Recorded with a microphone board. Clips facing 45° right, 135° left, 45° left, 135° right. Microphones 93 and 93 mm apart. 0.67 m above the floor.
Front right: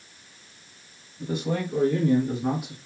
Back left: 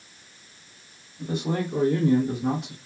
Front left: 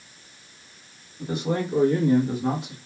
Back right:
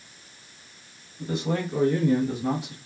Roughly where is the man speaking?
Left.